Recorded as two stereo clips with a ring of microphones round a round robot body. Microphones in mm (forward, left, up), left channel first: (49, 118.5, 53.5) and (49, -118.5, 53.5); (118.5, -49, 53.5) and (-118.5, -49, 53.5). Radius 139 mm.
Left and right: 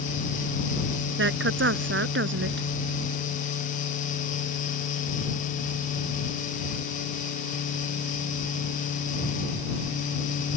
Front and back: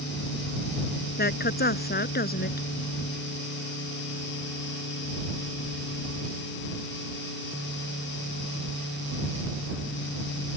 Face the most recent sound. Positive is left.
turn(degrees=-50)